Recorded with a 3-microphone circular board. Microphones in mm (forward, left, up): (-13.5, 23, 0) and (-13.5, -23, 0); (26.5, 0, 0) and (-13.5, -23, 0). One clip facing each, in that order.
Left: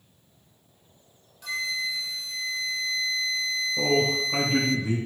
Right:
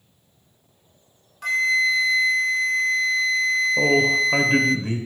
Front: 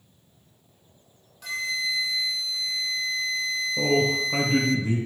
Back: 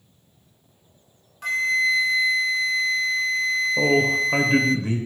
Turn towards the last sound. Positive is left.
turn(degrees=-120)